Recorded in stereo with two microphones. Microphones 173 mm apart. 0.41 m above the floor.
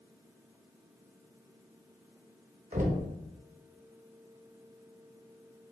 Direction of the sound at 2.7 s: 50° right (ahead or behind).